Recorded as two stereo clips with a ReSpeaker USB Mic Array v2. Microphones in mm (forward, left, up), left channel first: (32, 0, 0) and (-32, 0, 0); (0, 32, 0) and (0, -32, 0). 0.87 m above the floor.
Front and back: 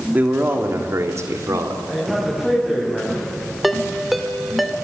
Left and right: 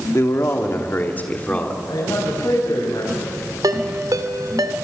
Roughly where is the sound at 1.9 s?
Left.